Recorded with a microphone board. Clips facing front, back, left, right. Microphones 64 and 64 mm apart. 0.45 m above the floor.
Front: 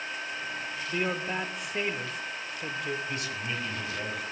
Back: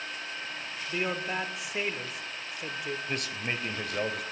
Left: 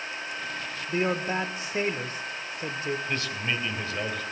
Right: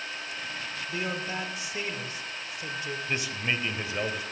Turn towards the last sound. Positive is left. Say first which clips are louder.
# even, even
turn(degrees=-160)